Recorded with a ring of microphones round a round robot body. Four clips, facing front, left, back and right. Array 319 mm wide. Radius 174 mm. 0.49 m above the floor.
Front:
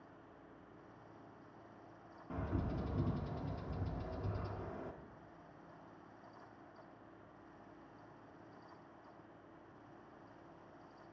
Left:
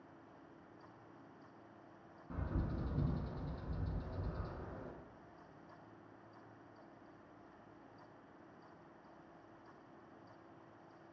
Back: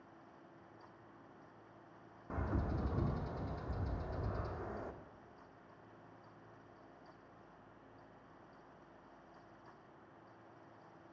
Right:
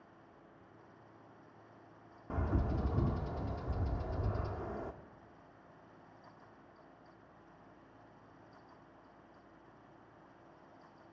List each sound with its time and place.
2.3 s a bird: 105° right, 0.5 m